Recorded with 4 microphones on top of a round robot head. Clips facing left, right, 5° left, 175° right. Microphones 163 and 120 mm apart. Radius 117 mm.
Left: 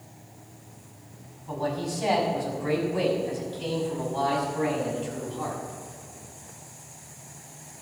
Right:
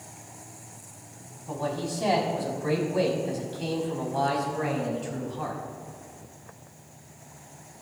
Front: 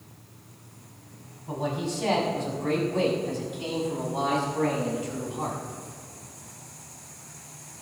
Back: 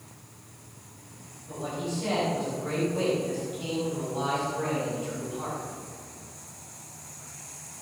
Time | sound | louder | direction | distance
1.5 | a man speaking | left 1 dB, front 3 dB | 30° right | 5 m